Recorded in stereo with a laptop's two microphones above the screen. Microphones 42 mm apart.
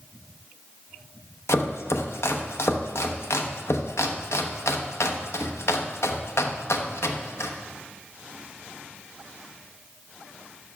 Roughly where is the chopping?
Left.